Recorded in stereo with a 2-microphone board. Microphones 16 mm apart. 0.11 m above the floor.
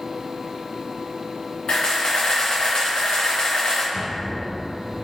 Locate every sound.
1.7 s a camera shutter: 75° left (ahead or behind), 1.7 m
3.9 s knocking: centre (ahead or behind), 1.6 m